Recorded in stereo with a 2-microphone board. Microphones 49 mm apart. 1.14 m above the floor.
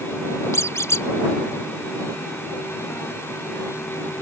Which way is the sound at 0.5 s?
65° left (ahead or behind).